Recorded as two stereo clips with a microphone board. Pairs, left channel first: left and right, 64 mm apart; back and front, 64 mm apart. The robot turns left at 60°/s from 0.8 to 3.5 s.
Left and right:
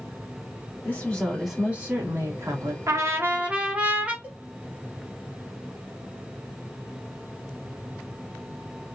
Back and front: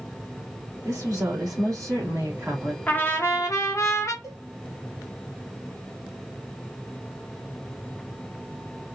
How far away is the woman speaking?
About 2 m.